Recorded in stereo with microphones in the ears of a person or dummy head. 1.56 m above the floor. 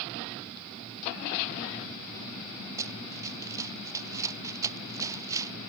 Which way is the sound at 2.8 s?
15° right (ahead or behind).